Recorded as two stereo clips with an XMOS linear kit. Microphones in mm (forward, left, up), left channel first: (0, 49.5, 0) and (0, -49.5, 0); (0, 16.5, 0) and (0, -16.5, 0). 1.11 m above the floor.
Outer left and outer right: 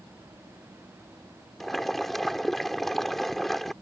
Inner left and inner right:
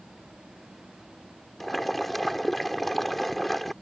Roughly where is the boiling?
Centre.